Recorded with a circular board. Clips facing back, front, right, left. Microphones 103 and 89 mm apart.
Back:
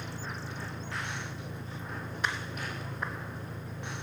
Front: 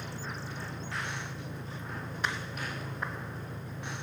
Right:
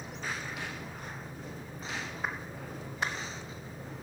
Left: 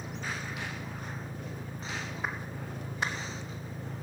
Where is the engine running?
90° left, 0.7 m.